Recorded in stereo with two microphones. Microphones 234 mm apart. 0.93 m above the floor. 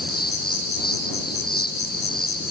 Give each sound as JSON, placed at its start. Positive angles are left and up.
{"t": 0.0, "sound": "an insect", "side_deg": 40}